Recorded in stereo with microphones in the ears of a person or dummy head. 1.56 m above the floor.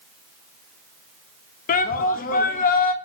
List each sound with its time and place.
1.7 s a shout: 45° left (ahead or behind), 0.5 m